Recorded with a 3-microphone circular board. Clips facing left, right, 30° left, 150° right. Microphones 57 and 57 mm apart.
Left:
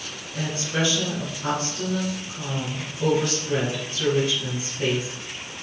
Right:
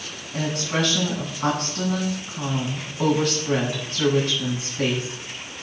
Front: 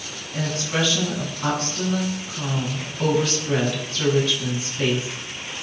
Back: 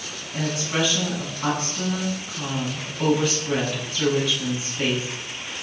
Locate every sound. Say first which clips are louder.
0.3 s a woman speaking: right 2 dB, even; 60° right, 8.5 m